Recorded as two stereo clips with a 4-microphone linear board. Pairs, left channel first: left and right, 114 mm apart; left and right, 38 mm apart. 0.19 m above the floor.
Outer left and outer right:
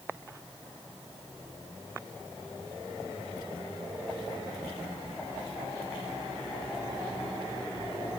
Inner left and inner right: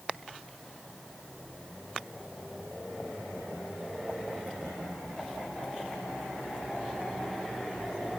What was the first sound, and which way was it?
Only background noise.